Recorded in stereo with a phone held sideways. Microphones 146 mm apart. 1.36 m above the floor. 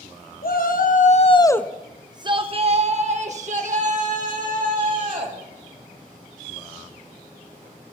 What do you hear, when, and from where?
0.4 s a shout: 80° left, 0.9 m; by 5.4 s 65° right (ahead or behind), 3 m